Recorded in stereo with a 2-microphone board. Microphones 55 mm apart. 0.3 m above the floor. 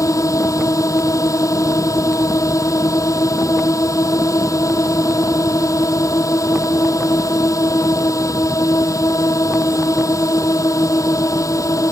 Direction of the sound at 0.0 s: 80° left.